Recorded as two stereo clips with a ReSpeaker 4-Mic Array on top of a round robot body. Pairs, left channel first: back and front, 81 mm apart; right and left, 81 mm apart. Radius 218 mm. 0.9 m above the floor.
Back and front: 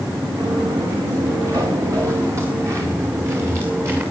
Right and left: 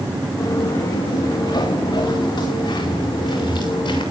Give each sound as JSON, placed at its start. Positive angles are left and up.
{"t": 0.4, "sound": "footsteps", "azimuth_deg": -40, "distance_m": 3.0}